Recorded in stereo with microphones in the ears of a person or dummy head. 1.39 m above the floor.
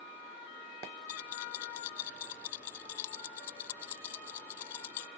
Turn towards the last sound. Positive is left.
turn(degrees=30)  # may be behind; listen again after turning